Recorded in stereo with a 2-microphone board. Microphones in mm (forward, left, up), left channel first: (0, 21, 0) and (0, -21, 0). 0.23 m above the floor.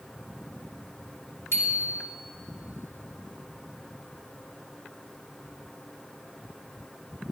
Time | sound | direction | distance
1.5 | a bicycle bell | 70° left (ahead or behind) | 2.5 m